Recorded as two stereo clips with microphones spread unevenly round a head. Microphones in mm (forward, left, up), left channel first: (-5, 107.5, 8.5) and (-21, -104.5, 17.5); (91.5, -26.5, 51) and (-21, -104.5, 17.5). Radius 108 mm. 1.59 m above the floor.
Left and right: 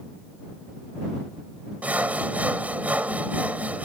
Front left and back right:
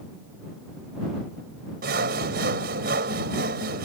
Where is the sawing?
Straight behind.